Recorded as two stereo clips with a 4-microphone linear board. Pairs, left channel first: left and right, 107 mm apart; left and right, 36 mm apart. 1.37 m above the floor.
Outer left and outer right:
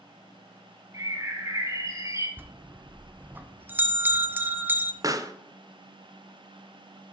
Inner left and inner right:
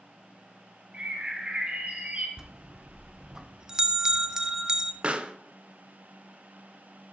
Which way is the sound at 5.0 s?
35° right (ahead or behind).